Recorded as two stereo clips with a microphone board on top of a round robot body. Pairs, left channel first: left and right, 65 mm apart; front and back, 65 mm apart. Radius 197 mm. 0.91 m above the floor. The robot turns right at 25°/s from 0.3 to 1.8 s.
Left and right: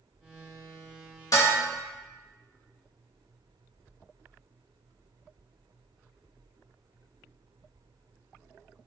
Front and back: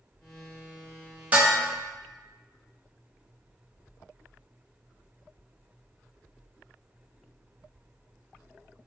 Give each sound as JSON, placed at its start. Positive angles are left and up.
{"t": 1.3, "sound": "dishes clattering", "azimuth_deg": 115, "distance_m": 0.7}